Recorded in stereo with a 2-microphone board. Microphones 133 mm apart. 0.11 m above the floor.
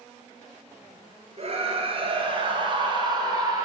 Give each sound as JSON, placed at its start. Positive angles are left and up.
{"t": 1.4, "sound": "a scream", "side_deg": -50, "distance_m": 2.0}